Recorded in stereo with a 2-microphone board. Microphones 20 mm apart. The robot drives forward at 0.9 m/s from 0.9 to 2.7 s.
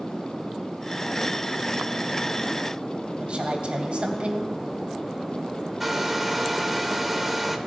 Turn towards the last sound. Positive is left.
turn(degrees=-10)  # may be behind; listen again after turning